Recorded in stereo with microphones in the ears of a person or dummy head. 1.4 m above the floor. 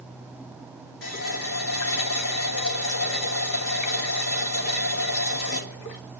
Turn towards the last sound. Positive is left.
turn(degrees=70)  # may be behind; listen again after turning